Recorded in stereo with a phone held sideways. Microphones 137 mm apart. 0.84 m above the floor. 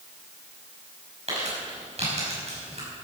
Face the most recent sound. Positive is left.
turn(degrees=-55)  # may be behind; listen again after turning